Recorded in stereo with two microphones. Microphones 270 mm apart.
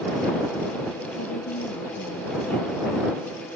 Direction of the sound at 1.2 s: 75° left (ahead or behind).